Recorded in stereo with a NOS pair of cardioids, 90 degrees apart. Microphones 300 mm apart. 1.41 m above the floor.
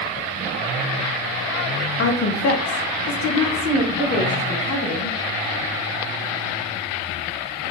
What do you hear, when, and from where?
2.0 s a woman speaking: 40° left, 0.8 m; by 5.1 s 75° left, 2.5 m